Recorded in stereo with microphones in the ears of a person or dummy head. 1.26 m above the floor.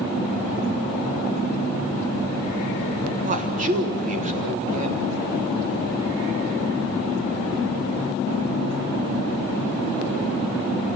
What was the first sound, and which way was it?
A man speaking, 40° right (ahead or behind).